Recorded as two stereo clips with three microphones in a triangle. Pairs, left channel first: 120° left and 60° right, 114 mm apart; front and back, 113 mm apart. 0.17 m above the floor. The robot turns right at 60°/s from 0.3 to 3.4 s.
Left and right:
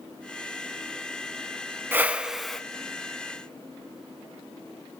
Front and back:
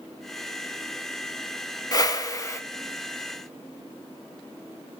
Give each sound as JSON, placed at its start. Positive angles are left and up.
{"t": 1.9, "sound": "a whoosh", "azimuth_deg": -5, "distance_m": 0.6}